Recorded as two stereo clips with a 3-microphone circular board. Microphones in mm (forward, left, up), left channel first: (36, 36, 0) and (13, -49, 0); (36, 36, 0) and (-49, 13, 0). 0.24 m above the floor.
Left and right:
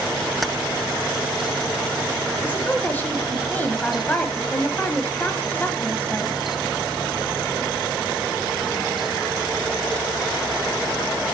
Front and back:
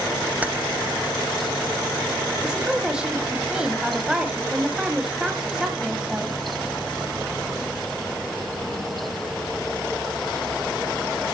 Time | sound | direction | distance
0.4 | keys jangling | 160° left | 0.7 m
2.4 | a woman speaking | 125° left | 1.3 m